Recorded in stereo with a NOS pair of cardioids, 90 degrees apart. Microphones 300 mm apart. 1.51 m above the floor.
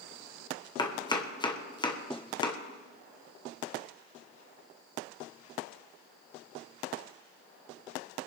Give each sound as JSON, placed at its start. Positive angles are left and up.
{"t": 0.8, "sound": "chopping", "azimuth_deg": 15, "distance_m": 1.3}